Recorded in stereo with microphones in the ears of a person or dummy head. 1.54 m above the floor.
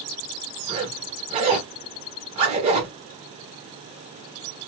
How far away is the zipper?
About 1.3 m.